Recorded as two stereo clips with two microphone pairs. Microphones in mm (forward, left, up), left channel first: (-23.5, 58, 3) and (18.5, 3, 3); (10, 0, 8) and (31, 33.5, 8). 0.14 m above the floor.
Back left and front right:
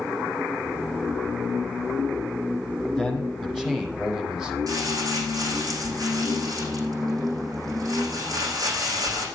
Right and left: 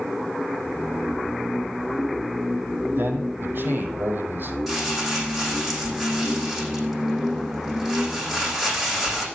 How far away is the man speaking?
About 5 m.